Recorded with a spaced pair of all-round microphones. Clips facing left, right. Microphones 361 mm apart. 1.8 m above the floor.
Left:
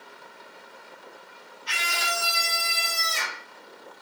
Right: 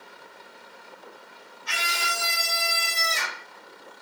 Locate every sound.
1.7 s a scream: 65° right (ahead or behind), 1.4 m; by 3.4 s 10° left (ahead or behind), 2.5 m